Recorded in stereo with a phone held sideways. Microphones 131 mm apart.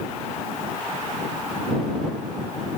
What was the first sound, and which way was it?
Only background noise.